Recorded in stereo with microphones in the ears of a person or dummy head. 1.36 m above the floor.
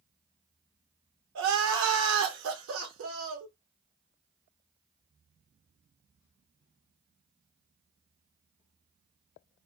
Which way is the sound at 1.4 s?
70° right (ahead or behind).